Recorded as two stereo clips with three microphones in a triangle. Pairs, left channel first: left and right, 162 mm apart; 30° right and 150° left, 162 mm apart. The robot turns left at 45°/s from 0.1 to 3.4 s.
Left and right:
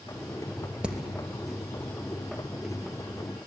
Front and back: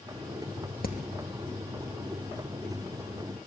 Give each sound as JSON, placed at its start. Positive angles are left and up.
{"t": 0.8, "sound": "hammering", "azimuth_deg": -5, "distance_m": 2.5}